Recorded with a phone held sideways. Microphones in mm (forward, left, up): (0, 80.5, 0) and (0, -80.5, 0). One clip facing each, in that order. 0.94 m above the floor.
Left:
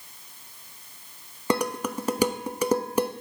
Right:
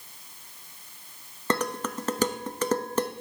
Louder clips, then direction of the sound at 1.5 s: Left 2 dB; 10° left (ahead or behind).